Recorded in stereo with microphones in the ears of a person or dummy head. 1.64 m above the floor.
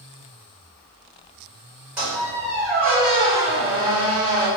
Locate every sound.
2.0 s a squeak: 5° right (ahead or behind), 1.7 m